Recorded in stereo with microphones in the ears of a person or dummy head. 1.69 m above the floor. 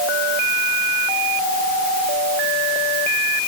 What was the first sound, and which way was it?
Only background noise.